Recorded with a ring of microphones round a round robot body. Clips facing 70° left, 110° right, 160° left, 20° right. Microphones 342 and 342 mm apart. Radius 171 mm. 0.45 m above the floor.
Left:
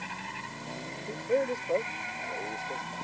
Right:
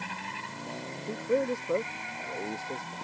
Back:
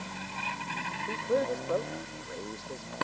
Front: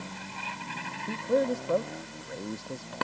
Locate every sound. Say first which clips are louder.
1.1 s a man speaking: right 1 dB, front 3 dB; 35° right; by 3.0 s 45° right